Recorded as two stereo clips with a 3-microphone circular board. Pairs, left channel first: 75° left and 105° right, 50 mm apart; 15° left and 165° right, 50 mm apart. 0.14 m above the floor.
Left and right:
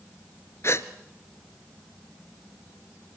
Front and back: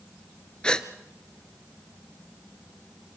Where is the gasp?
85° left, 1.1 m.